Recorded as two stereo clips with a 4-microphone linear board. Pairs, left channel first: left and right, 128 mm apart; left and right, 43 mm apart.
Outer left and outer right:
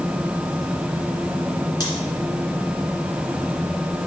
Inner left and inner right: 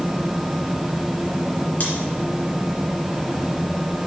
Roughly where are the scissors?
Left.